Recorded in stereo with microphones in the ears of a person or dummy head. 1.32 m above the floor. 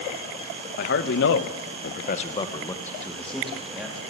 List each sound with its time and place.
0.8 s a man speaking: 55° left (ahead or behind), 1.8 m; by 4.0 s 5° right (ahead or behind), 3 m